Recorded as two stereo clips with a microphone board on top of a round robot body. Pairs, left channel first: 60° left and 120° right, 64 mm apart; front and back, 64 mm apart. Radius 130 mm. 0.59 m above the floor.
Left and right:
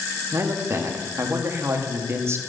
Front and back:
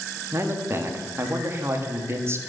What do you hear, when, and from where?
0.3 s a man speaking: 150° right, 1.4 m